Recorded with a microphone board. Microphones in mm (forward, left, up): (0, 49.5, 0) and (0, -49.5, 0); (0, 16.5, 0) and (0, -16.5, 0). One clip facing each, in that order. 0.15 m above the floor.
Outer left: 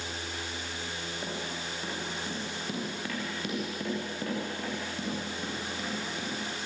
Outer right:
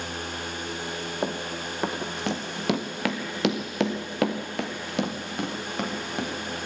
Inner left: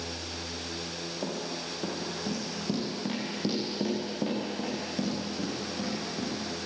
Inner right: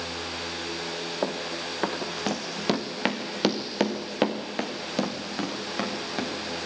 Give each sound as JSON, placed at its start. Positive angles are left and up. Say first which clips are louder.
{"t": 1.2, "sound": "running footsteps", "louder": "outer right 8 dB, inner right 5 dB", "side_deg": -55, "distance_m": 2.5}